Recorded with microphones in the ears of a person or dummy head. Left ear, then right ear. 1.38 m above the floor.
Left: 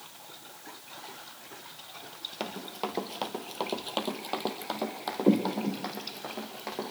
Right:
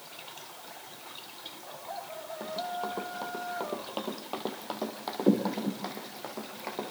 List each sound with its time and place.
2.4 s running footsteps: 55° left (ahead or behind), 2.5 m; by 6.9 s 10° right (ahead or behind), 5 m